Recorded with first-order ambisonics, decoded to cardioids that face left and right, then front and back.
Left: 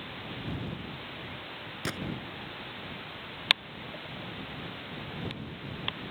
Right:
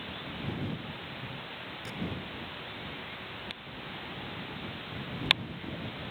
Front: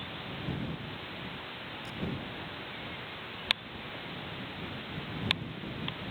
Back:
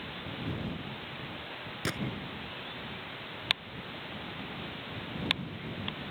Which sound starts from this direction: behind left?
A gunshot, at 1.9 s.